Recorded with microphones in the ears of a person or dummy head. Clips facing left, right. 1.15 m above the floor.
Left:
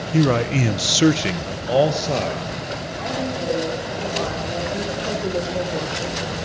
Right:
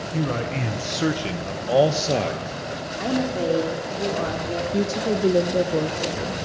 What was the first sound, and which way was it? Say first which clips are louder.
A man speaking: left 8 dB; 60° left (ahead or behind).